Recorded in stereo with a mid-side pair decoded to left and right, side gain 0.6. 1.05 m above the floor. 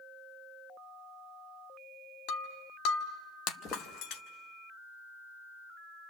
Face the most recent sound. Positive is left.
turn(degrees=40)